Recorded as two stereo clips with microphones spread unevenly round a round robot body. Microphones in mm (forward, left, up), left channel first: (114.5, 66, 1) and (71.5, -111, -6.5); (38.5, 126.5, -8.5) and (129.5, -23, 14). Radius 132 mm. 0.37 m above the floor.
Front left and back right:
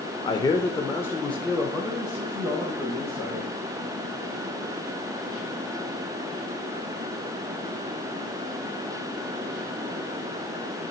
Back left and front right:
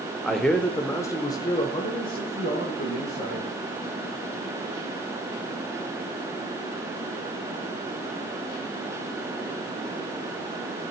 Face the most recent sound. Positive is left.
turn(degrees=180)